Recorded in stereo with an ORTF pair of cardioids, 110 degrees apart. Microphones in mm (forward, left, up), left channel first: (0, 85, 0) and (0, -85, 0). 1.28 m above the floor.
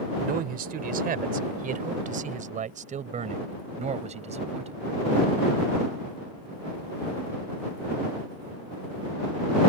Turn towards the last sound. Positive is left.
turn(degrees=-40)